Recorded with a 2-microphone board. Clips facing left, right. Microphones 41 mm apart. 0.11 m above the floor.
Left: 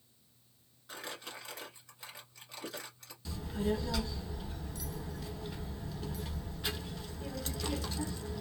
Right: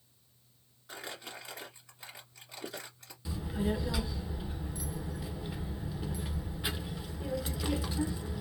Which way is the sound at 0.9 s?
5° right (ahead or behind).